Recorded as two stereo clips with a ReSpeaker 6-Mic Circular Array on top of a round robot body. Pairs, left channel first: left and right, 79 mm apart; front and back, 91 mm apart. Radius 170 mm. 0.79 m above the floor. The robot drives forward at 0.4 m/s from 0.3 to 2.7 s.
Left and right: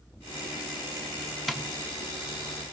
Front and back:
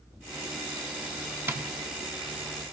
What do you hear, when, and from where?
1.5 s tapping: straight behind, 1.0 m